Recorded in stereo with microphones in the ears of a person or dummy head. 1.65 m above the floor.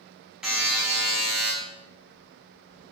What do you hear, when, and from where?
0.4 s a buzzer: 5° right (ahead or behind), 1.0 m